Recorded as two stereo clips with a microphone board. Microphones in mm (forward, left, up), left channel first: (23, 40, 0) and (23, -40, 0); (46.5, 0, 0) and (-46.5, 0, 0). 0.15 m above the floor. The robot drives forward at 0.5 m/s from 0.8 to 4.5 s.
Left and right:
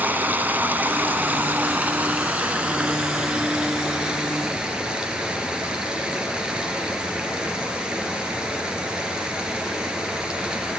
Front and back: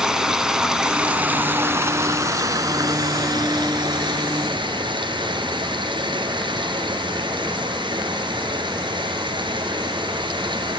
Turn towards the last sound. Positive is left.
turn(degrees=-165)